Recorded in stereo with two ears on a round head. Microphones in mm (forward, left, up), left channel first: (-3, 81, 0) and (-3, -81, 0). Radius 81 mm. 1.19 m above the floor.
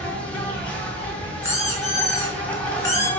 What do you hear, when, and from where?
0.0 s an insect: 10° left (ahead or behind), 1.6 m
1.4 s a squeak: 15° left (ahead or behind), 2.0 m